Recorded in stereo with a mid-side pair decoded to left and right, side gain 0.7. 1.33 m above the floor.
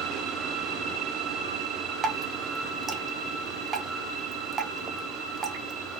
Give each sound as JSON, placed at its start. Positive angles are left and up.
{"t": 2.0, "sound": "dripping", "azimuth_deg": -30, "distance_m": 0.7}